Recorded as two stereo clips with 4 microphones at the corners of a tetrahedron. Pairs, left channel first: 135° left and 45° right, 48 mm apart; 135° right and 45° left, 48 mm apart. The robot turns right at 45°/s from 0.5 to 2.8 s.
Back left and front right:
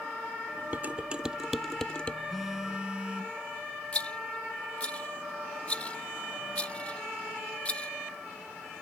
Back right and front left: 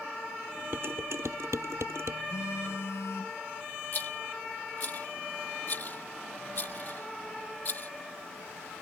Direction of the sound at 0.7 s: 5° left.